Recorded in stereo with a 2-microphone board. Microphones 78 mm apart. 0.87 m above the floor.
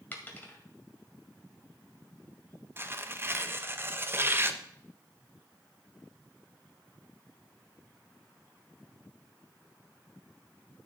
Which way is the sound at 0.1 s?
20° left (ahead or behind).